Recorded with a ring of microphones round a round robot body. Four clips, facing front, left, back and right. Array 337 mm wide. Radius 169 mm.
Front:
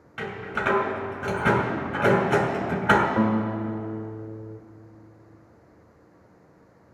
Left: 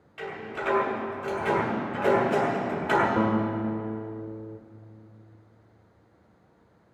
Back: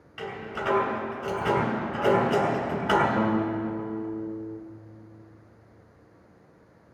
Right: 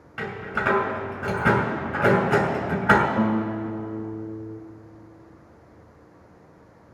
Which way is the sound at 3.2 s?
40° left.